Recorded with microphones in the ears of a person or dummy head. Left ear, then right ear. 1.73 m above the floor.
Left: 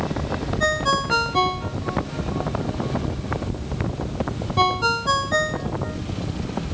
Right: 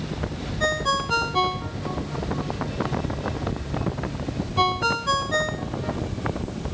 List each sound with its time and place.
0.6 s a ringtone: centre (ahead or behind)